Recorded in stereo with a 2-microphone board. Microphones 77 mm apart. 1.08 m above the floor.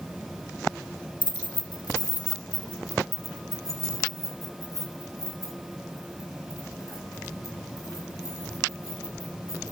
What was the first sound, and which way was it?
Keys jangling, 80° left.